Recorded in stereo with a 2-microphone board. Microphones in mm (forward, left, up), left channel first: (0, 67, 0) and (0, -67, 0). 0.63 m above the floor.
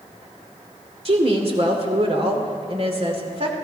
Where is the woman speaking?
45° right (ahead or behind), 2 m.